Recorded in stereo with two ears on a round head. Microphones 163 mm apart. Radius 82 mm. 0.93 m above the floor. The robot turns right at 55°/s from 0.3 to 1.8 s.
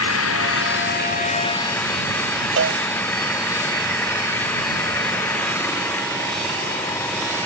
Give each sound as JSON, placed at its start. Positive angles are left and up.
{"t": 0.0, "sound": "an engine running", "azimuth_deg": 85}
{"t": 2.6, "sound": "a cowbell", "side_deg": -80}